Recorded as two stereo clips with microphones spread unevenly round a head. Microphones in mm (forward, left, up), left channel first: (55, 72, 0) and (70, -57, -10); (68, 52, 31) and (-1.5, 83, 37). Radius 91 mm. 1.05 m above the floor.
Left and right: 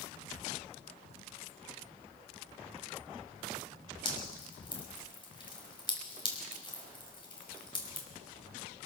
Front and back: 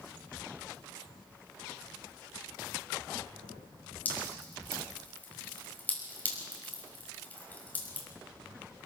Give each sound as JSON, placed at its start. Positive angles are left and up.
{"t": 4.0, "sound": "dripping", "azimuth_deg": 45, "distance_m": 6.0}